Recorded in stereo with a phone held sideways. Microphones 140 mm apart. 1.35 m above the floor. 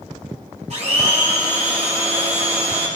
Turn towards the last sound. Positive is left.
turn(degrees=-50)  # may be behind; listen again after turning